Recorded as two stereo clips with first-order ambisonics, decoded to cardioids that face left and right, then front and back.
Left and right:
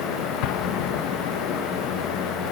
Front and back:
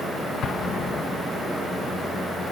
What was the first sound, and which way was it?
An explosion, 60° left.